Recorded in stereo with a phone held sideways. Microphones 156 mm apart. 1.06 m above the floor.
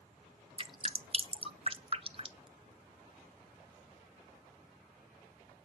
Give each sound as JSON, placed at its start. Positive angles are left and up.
{"t": 0.6, "sound": "dripping", "side_deg": -40, "distance_m": 0.6}